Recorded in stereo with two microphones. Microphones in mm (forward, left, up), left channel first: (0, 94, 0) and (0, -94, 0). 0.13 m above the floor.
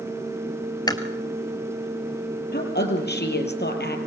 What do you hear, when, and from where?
0.9 s chewing: 20° left (ahead or behind), 1.6 m
2.5 s a woman speaking: 65° left (ahead or behind), 3.5 m